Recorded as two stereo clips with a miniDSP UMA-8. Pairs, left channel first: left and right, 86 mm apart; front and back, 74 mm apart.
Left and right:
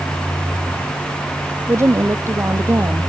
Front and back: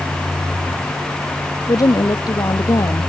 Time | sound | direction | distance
1.7 | a woman speaking | 30° right | ?